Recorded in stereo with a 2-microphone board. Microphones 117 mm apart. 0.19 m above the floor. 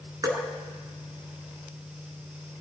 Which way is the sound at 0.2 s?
35° right (ahead or behind).